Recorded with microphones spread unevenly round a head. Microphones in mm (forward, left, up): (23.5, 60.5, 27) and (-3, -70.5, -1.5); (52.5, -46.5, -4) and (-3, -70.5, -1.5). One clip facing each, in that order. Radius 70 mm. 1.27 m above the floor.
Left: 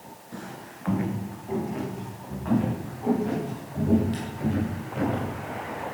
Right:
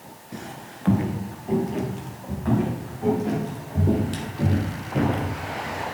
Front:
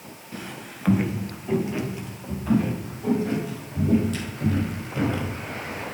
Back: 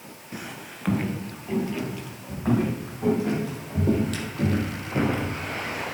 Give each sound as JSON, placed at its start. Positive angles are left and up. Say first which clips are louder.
{"t": 0.3, "sound": "footsteps", "louder": "right 2 dB, even", "azimuth_deg": -175, "distance_m": 1.2}
{"t": 2.5, "sound": "footsteps", "louder": "right 1 dB, even", "azimuth_deg": -155, "distance_m": 4.5}